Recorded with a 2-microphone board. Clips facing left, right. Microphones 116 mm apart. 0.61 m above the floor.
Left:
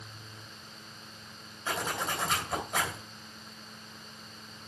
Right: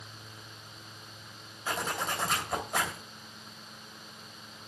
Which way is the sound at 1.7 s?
Centre (ahead or behind).